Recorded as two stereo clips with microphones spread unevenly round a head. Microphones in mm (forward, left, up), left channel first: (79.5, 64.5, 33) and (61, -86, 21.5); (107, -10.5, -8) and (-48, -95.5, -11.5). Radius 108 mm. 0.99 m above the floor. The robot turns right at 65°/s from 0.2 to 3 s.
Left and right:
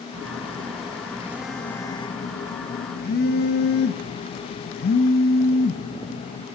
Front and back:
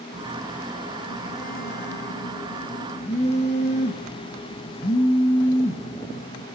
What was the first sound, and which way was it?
A phone buzzing, 95° right.